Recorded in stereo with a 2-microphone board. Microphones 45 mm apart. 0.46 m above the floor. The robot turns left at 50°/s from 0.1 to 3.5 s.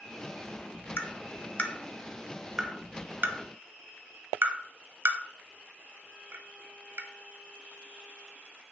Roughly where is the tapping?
Left.